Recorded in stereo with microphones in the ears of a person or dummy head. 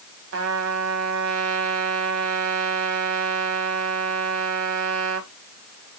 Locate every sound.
0.3 s a trumpet: 80° right, 2 m